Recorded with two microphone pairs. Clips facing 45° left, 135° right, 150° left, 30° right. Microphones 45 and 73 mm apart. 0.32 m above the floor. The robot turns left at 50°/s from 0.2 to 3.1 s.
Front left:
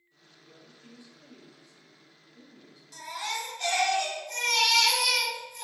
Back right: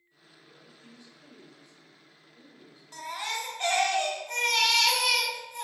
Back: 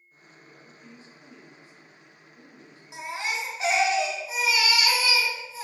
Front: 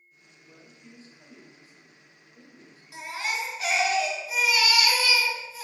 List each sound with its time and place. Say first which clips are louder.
0.4 s a woman speaking: front left 1 dB, back 1 dB; 10° left, 1.1 m; by 2.8 s 110° right, 1.1 m
2.9 s a baby crying: back right 1 dB, even; 165° right, 0.6 m; by 5.6 s 170° right, 0.6 m